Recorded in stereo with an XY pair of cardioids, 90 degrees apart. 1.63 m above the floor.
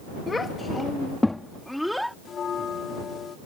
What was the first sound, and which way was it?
A child speaking, 35° left.